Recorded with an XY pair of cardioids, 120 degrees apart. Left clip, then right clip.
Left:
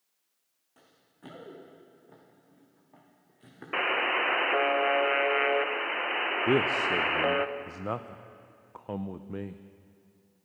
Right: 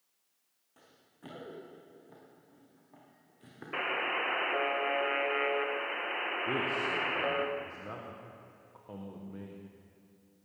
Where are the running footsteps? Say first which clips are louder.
Left 1 dB; 10° left, 4.5 m.